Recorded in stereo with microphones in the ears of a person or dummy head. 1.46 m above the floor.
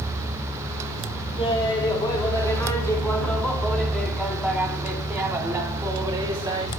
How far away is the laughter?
About 3 m.